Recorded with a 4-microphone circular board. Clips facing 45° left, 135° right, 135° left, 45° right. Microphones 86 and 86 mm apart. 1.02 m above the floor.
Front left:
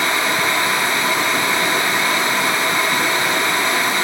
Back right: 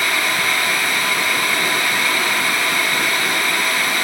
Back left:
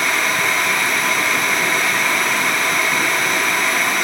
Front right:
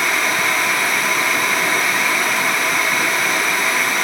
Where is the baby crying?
I don't hear a baby crying.